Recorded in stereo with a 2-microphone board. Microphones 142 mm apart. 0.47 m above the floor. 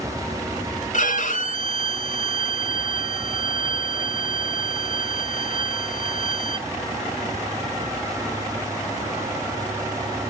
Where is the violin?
65° left (ahead or behind), 0.7 m.